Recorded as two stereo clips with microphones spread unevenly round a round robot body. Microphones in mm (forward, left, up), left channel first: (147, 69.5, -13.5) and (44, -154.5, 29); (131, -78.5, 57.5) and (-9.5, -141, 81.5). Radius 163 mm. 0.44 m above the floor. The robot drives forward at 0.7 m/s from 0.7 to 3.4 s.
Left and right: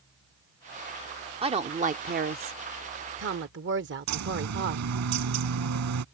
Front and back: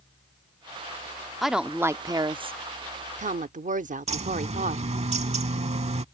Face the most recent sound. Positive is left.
turn(degrees=-110)